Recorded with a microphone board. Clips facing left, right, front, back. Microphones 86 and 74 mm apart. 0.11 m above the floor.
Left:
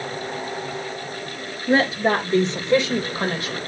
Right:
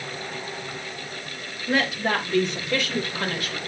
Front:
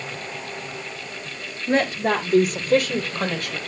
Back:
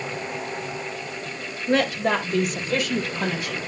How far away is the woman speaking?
About 2.0 m.